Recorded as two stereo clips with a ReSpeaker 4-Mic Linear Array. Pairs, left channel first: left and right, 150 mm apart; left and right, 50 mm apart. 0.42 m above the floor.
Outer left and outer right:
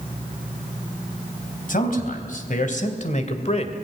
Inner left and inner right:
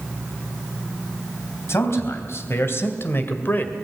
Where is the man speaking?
65° left (ahead or behind), 3.5 m; by 3.8 s 40° left (ahead or behind), 2.0 m.